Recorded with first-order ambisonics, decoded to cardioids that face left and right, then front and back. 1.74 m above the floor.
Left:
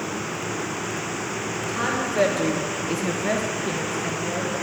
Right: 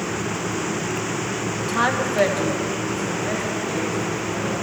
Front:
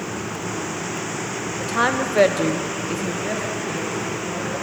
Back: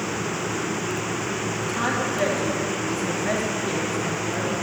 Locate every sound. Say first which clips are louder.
1.6 s a woman speaking: right 5 dB, front 6 dB; 35° right, 1.7 m; by 4.5 s 95° left, 3.5 m